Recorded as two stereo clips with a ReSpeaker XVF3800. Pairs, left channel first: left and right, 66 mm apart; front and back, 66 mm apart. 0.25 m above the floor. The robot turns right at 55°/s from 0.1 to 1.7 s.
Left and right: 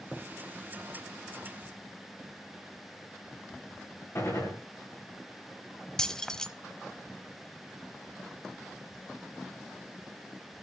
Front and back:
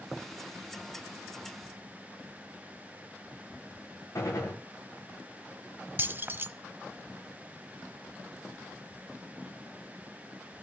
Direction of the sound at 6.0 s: 160° left.